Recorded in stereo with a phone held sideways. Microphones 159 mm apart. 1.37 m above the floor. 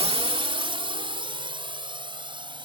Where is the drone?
35° right (ahead or behind); by 2.6 s 30° right (ahead or behind).